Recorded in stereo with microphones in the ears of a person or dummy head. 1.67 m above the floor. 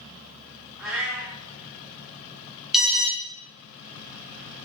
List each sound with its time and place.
0.8 s a cat meowing: 10° right (ahead or behind), 3.5 m
2.7 s an alarm: centre (ahead or behind), 1.2 m